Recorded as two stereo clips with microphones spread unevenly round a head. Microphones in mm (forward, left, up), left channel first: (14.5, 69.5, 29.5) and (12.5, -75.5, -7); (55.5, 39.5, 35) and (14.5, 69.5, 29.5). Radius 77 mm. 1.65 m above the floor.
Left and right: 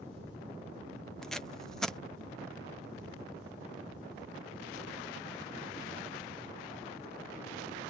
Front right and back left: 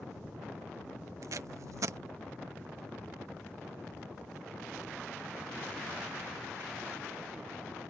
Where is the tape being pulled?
Straight behind.